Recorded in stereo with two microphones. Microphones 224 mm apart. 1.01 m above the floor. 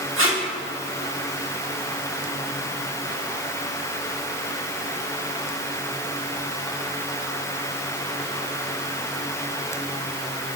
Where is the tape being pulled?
60° right (ahead or behind), 1.8 m.